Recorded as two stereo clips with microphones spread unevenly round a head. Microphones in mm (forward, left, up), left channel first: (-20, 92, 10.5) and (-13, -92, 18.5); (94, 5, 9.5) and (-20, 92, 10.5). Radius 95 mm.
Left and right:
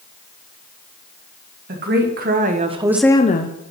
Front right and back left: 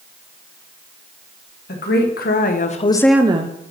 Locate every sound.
1.7 s a woman speaking: 50° right, 1.8 m; by 3.6 s 110° left, 0.8 m